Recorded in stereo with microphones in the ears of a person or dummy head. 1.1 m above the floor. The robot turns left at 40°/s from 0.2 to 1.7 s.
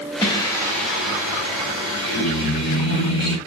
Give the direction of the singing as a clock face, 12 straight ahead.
6 o'clock.